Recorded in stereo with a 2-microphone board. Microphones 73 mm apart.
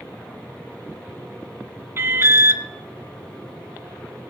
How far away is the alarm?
About 1.2 m.